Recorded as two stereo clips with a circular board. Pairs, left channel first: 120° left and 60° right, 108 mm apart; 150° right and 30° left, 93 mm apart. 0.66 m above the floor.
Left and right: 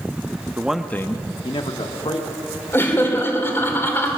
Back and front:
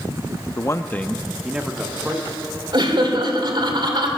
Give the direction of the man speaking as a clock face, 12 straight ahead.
4 o'clock.